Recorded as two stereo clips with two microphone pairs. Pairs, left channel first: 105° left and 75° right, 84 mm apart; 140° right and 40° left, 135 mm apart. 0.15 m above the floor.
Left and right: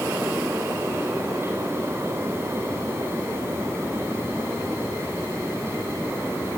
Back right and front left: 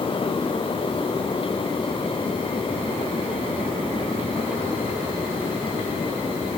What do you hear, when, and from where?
Only background noise.